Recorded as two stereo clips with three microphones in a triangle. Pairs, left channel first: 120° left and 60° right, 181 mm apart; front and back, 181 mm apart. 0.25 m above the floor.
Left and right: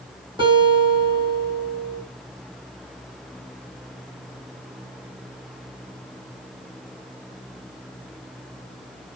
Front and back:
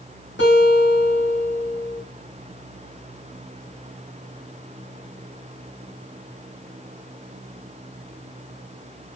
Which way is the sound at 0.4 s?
5° left.